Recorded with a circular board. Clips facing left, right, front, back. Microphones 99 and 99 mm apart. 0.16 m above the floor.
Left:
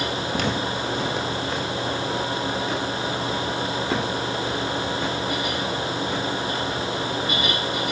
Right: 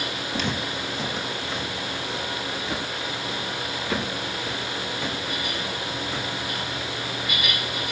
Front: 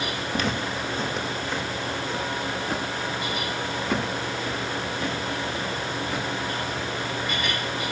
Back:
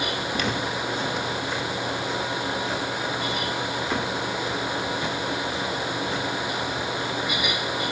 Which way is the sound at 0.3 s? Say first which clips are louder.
Left 2 dB, front 2 dB; 50° left.